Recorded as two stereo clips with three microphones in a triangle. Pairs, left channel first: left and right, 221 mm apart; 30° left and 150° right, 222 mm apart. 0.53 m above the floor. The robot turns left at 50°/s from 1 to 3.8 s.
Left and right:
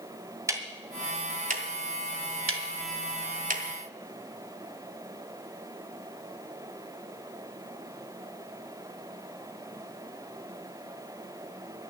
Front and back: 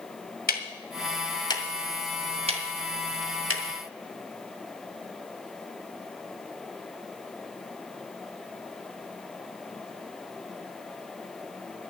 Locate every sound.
0.5 s ticking: 15° right, 2 m; by 3.6 s 145° right, 2 m